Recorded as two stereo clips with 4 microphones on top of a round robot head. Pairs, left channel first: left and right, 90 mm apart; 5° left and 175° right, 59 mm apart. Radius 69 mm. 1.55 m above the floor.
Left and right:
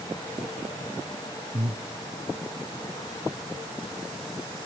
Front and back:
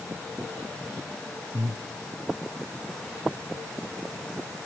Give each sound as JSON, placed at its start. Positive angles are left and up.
{"t": 1.5, "sound": "breathing", "azimuth_deg": -135, "distance_m": 0.7}